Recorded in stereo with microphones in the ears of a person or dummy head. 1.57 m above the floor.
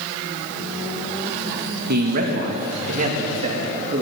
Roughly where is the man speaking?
Right.